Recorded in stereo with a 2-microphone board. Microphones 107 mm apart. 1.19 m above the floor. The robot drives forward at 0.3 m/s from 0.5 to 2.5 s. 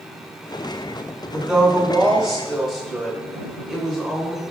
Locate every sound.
1.3 s a woman speaking: 5° right (ahead or behind), 0.8 m